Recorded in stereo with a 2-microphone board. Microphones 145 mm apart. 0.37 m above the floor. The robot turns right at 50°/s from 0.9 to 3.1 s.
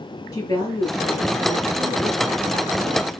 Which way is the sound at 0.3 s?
155° left.